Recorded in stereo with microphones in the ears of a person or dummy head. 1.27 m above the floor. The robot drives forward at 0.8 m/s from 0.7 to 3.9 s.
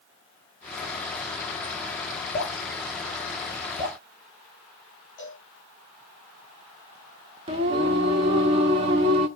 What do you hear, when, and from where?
2.3 s dripping: 30° left (ahead or behind), 9.5 m
5.2 s a cowbell: 15° left (ahead or behind), 9.5 m
7.5 s singing: 30° right (ahead or behind), 1.2 m